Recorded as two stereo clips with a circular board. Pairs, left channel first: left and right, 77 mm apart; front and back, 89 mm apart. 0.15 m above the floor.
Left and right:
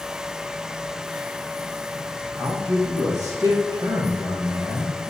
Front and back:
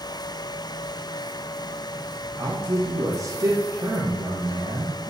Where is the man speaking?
130° right, 3.5 m.